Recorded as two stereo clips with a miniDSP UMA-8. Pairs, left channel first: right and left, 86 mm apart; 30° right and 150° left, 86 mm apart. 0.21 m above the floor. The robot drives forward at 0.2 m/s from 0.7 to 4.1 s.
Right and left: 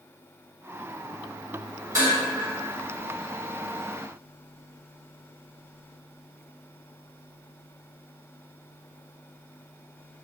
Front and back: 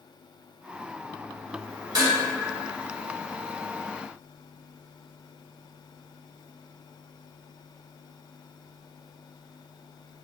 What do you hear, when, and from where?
1.9 s dishes clattering: 130° left, 1.1 m; by 2.2 s 135° left, 1.1 m